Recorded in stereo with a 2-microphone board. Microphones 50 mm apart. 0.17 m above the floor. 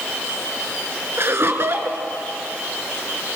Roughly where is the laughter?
Right.